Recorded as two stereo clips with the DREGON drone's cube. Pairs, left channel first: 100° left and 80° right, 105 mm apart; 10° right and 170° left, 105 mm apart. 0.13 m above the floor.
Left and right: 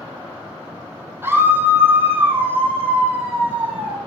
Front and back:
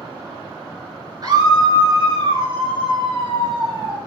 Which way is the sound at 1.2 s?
145° right.